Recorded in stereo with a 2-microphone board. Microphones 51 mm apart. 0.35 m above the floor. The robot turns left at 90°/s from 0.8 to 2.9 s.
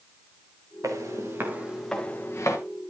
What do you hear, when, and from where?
0.8 s footsteps: 80° right, 3.5 m; by 2.6 s 70° left (ahead or behind), 3 m